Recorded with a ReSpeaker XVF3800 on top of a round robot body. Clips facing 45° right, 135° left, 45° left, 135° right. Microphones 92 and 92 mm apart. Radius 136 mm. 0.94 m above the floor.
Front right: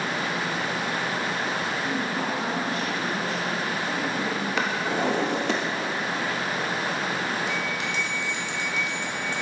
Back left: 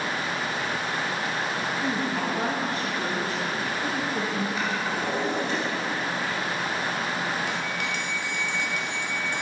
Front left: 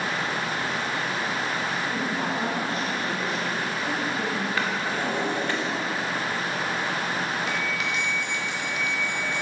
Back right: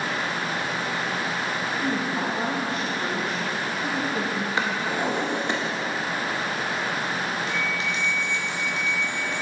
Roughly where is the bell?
Behind.